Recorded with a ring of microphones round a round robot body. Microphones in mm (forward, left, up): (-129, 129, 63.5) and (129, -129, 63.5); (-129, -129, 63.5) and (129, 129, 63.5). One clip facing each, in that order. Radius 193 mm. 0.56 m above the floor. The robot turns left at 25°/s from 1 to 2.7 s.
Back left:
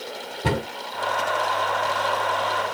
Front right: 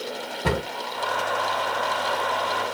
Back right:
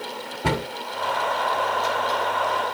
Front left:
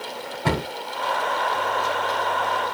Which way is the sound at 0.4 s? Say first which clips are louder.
Back left 1 dB, even; straight behind.